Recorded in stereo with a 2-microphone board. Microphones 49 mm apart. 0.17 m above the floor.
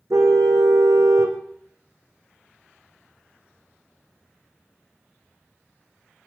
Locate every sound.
0.1 s a car horn: 80° right, 3.5 m